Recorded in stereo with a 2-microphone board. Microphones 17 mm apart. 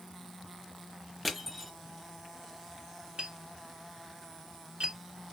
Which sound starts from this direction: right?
Tapping, at 3.2 s.